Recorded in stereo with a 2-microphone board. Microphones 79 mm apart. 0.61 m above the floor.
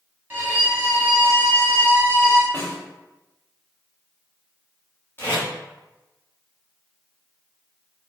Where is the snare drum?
25° left (ahead or behind), 1.6 m.